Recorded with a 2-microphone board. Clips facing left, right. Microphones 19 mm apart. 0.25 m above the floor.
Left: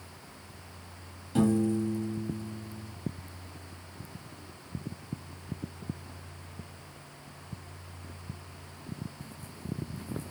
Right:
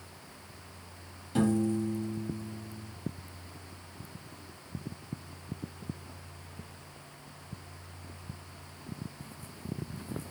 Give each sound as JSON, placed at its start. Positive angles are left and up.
{"t": 1.4, "sound": "a piano", "side_deg": -5, "distance_m": 0.9}